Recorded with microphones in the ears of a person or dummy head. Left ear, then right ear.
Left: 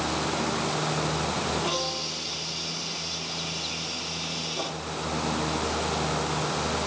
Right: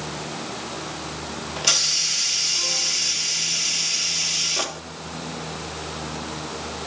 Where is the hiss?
55° right (ahead or behind), 0.8 m.